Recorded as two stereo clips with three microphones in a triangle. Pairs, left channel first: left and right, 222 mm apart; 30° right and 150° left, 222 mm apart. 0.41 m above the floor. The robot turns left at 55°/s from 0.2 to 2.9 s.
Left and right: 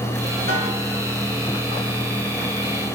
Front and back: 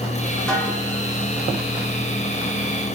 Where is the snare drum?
115° right, 1.8 m; by 0.7 s 130° right, 1.8 m.